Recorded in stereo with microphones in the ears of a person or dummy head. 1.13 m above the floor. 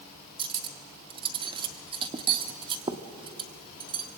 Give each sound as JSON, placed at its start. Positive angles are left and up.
{"t": 0.4, "sound": "cutlery clinking", "side_deg": -30, "distance_m": 1.3}